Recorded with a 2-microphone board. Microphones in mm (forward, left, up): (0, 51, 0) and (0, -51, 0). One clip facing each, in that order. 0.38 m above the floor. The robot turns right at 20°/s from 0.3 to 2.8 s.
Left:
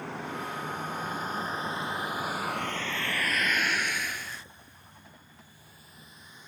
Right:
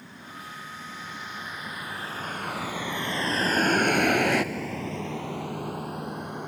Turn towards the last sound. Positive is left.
turn(degrees=-60)  # may be behind; listen again after turning